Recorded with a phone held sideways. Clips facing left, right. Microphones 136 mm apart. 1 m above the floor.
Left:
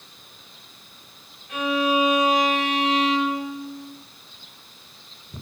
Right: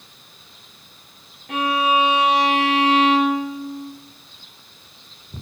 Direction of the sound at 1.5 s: 80° right.